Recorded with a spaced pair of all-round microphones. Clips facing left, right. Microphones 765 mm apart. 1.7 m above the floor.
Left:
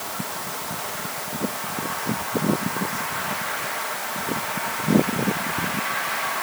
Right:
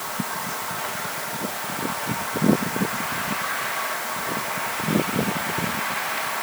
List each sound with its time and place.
Only background noise.